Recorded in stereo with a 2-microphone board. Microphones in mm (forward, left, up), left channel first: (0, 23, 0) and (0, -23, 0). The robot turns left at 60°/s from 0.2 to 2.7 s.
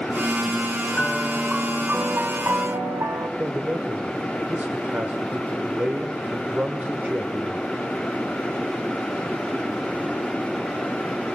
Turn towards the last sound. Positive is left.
turn(degrees=-35)  # may be behind; listen again after turning